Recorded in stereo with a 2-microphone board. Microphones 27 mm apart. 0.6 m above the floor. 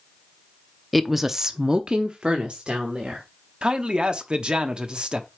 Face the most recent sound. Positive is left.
turn(degrees=-40)  # may be behind; listen again after turning